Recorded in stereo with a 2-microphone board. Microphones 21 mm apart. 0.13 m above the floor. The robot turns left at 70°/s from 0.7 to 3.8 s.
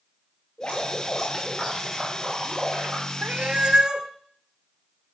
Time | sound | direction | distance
0.6 | dripping | 65° left | 9 m
3.2 | a cat meowing | 105° right | 0.7 m